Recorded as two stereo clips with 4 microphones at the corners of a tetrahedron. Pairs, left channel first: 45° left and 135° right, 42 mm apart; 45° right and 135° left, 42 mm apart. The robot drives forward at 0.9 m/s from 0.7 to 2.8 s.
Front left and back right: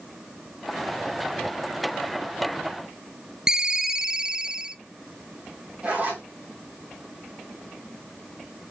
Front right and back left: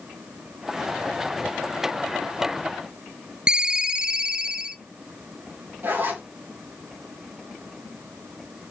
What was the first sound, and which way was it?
A ringtone, 175° left.